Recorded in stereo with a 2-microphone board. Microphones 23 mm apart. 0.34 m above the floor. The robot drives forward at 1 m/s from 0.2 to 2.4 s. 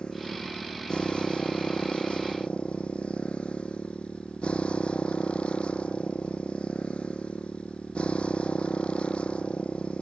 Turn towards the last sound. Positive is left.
turn(degrees=55)  # may be behind; listen again after turning